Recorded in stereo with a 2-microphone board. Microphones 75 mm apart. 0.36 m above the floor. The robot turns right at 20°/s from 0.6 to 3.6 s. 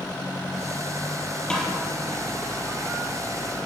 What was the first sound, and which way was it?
A snare drum, 10° left (ahead or behind).